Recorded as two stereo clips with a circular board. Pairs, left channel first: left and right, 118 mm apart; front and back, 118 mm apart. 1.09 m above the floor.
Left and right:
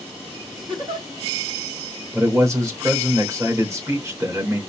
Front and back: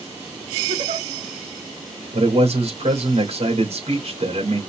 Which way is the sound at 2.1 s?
155° right.